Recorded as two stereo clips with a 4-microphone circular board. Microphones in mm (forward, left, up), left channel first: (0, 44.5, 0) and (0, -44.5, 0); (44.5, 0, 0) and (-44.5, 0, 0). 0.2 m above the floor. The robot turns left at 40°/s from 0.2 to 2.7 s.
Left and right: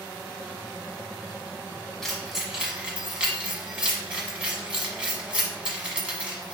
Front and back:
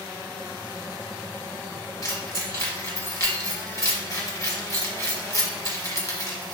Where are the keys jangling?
10° left, 1.2 m; by 6.5 s 20° right, 1.2 m.